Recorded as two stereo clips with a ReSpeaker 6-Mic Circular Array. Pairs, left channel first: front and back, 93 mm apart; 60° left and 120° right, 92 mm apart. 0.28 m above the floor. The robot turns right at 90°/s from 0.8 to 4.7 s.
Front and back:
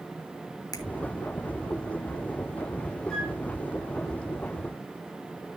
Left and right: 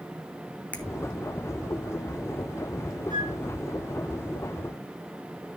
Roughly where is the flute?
Right.